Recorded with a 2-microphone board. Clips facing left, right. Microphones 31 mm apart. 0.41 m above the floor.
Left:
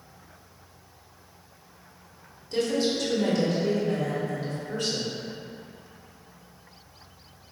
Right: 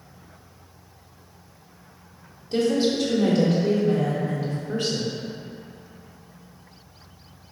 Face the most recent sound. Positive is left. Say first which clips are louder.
# right 4 dB
turn(degrees=-15)  # may be behind; listen again after turning